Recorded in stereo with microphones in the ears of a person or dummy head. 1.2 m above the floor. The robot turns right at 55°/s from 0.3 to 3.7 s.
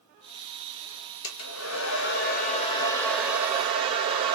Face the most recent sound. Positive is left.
turn(degrees=-155)